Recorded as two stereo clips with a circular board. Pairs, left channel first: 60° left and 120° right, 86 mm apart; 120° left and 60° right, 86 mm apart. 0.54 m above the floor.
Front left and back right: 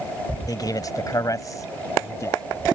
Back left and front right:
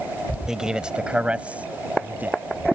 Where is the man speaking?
25° left; by 2.4 s 10° left.